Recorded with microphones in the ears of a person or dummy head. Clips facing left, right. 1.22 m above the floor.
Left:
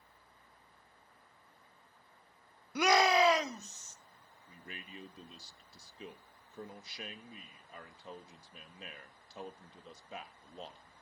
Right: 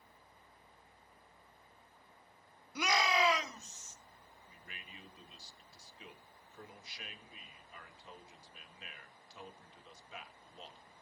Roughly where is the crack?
No crack in this recording.